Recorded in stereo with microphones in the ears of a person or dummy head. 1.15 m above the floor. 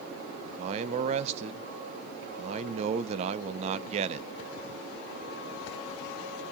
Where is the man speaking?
35° right (ahead or behind), 0.5 m.